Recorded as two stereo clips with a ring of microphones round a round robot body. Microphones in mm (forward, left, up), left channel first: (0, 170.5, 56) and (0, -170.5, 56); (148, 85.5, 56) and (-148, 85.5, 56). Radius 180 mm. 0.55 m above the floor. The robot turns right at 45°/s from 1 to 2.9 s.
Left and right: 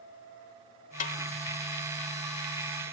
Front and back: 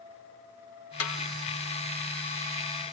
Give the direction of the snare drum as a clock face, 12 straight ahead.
11 o'clock.